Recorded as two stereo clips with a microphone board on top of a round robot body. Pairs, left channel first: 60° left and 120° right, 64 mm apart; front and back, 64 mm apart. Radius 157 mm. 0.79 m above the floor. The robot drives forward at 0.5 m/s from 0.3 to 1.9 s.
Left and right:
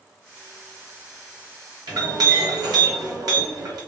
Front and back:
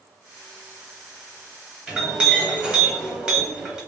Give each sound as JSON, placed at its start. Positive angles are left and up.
{"t": 1.9, "sound": "a clink", "azimuth_deg": -105, "distance_m": 1.0}